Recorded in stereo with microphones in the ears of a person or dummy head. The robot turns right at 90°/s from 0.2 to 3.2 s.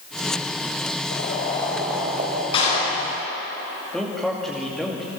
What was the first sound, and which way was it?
Boiling, 115° left.